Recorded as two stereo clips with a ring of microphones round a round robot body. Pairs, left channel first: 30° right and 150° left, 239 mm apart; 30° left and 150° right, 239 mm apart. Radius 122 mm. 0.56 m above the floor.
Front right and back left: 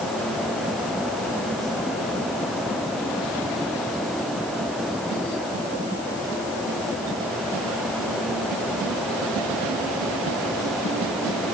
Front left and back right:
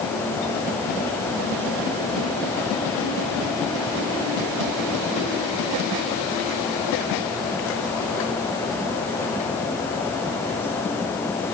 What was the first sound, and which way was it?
Only background noise.